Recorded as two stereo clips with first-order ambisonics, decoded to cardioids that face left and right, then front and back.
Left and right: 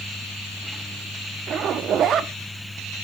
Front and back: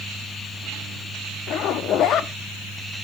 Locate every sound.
1.5 s a zipper: 40° right, 0.5 m